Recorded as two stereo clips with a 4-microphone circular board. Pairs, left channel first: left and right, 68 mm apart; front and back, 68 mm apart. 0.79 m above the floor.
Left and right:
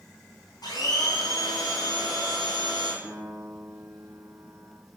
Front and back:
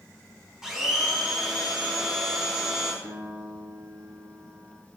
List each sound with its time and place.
0.6 s a blender: 100° left, 3 m
3.0 s a piano: 165° right, 3.5 m